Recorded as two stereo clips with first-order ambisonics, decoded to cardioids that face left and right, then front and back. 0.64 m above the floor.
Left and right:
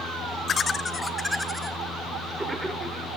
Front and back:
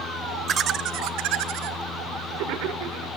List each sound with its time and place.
0.5 s laughter: 135° left, 0.6 m; by 3.1 s 170° right, 1.9 m